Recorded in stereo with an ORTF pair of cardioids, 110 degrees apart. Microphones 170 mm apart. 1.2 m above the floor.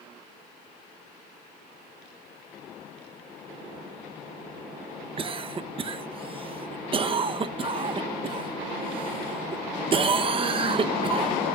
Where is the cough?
30° right, 0.9 m.